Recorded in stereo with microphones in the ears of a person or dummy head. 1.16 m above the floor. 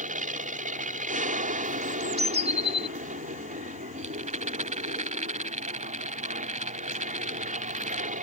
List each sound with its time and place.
0.0 s an aircraft: 40° right (ahead or behind)
1.8 s a bird: 30° right (ahead or behind)
4.0 s a rattle: 40° right (ahead or behind)